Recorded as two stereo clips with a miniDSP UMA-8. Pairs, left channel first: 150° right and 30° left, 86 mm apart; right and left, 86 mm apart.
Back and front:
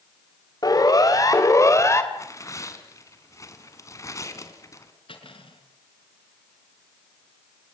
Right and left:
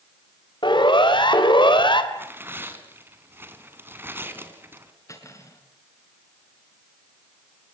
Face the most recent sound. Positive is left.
turn(degrees=-145)